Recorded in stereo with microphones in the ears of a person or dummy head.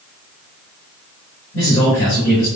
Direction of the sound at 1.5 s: 45° left (ahead or behind).